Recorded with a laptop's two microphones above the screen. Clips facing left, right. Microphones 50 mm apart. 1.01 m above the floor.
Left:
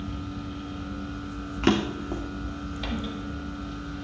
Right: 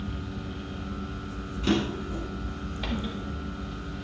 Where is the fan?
10° right (ahead or behind), 1.0 m.